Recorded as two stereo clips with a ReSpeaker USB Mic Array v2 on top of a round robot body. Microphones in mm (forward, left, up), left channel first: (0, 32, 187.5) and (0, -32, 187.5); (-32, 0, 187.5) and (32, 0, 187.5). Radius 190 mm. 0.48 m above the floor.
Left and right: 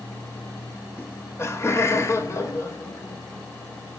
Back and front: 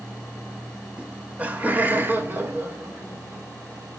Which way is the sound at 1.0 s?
65° left.